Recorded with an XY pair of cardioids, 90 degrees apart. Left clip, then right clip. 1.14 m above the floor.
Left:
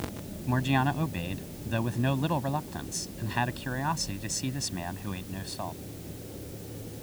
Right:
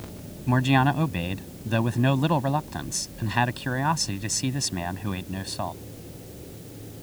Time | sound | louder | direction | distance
0.5 | a man speaking | right 6 dB | 45° right | ?